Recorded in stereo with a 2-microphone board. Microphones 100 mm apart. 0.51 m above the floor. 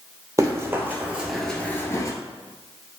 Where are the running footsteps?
30° right (ahead or behind), 0.8 m; by 2.1 s 35° left (ahead or behind), 0.5 m.